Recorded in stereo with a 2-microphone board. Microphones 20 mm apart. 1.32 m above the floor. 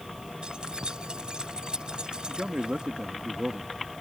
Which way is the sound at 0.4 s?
55° right (ahead or behind).